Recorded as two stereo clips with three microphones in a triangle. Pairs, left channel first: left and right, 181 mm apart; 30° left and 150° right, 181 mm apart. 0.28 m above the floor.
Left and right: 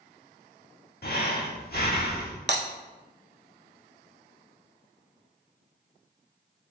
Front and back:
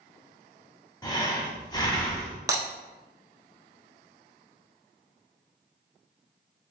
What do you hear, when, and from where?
1.0 s breathing: 95° left, 0.7 m
2.5 s breaking glass: 75° right, 0.5 m